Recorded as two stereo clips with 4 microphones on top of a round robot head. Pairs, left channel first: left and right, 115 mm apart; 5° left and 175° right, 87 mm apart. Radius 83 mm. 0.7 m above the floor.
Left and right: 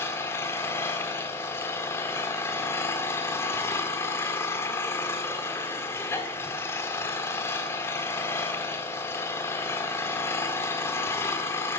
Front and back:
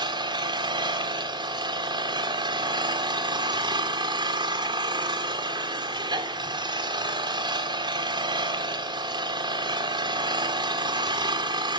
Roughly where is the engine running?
Behind.